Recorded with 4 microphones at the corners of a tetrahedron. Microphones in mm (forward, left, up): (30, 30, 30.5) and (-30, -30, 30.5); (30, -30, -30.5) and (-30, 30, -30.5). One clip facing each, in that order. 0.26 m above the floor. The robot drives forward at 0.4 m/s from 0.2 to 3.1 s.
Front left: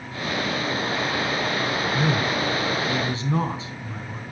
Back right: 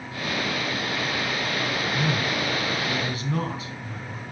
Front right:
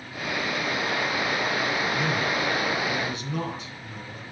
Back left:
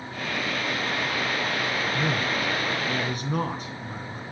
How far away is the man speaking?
About 3 m.